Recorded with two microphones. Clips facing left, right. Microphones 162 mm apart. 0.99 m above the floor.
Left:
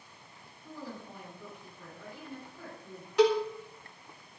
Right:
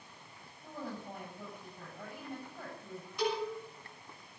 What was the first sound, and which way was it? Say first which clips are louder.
A woman speaking: right 1 dB; 50° right (ahead or behind).